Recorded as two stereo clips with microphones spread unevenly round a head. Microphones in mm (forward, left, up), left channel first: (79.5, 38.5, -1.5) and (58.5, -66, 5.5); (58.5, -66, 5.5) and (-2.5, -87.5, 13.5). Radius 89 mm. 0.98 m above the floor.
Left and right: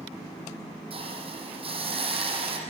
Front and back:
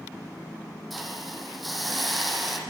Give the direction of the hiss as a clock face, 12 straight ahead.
2 o'clock.